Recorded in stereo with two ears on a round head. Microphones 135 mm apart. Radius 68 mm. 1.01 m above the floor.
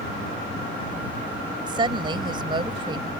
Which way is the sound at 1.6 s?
35° right (ahead or behind).